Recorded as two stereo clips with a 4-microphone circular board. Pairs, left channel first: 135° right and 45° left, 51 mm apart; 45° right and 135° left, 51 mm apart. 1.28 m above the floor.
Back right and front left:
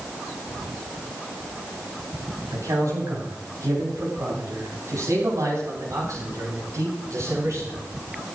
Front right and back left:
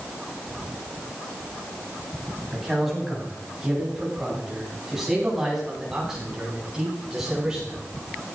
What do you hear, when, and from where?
2.5 s a man speaking: 45° left, 8.5 m; by 7.8 s 55° left, 11 m